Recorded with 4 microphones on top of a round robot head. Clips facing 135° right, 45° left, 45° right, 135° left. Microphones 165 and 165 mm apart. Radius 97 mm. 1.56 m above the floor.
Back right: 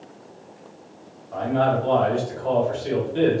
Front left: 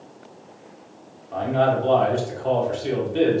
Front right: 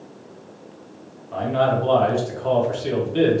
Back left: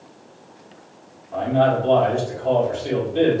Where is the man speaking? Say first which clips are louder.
Front left 1 dB, back left 2 dB; 25° right, 1.8 m.